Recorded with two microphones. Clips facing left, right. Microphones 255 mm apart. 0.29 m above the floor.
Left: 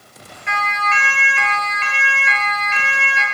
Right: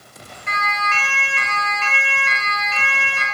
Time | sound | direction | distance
0.5 | a siren | 45° right (ahead or behind) | 8.5 m